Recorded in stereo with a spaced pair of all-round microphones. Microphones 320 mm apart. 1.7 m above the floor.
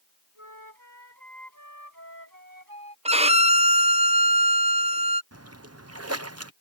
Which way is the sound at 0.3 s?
75° right (ahead or behind).